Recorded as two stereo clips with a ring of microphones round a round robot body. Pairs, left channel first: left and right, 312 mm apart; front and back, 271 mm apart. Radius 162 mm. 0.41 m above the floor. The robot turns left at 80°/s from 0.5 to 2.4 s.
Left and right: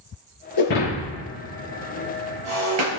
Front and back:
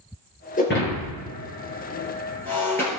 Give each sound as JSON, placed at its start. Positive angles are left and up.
{"t": 0.6, "sound": "breaking glass", "azimuth_deg": 65, "distance_m": 6.0}